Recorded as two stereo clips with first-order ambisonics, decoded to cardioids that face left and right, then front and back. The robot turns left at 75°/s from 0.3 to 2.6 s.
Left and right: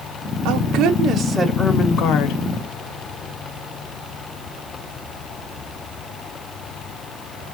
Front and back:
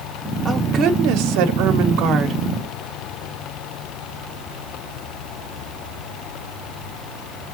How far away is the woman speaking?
About 1.2 m.